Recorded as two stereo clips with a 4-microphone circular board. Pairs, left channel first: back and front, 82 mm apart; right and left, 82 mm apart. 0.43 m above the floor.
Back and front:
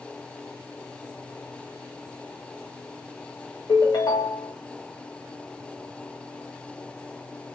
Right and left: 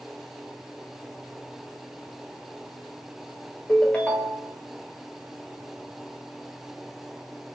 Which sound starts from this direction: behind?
A ringtone, at 3.7 s.